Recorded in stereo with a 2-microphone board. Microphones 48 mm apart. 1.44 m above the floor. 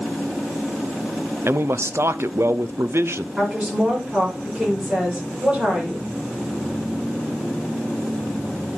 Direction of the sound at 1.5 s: 65° right (ahead or behind).